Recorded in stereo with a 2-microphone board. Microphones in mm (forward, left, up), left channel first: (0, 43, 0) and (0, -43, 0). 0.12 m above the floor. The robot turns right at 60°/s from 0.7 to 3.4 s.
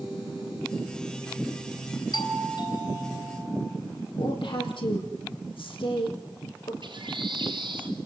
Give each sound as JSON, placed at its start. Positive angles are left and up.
{"t": 2.1, "sound": "a doorbell", "azimuth_deg": 70, "distance_m": 3.5}
{"t": 4.2, "sound": "a woman speaking", "side_deg": 70, "distance_m": 5.0}
{"t": 6.8, "sound": "a bird", "side_deg": -70, "distance_m": 4.5}